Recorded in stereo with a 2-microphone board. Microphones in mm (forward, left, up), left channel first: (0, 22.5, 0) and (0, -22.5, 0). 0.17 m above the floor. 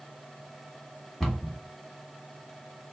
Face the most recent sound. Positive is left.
turn(degrees=10)  # may be behind; listen again after turning